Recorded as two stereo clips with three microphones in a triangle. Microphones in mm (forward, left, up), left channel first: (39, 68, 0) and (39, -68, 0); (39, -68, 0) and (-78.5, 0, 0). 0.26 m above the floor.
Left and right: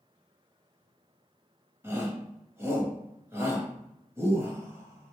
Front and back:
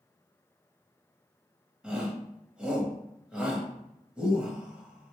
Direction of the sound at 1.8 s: 135° right.